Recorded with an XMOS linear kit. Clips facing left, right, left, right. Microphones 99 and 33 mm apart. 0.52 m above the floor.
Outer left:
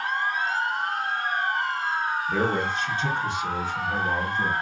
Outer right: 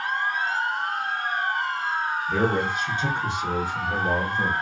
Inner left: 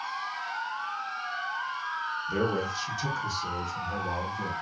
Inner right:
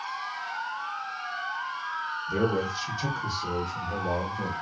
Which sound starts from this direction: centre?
A man speaking, at 2.3 s.